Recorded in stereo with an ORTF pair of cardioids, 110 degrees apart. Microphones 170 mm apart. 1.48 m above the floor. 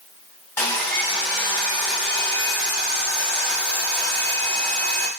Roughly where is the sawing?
Ahead.